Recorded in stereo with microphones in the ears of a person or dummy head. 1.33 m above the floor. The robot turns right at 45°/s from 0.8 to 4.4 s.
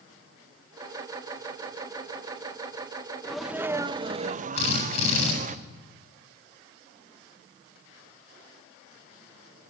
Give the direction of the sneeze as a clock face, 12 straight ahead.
6 o'clock.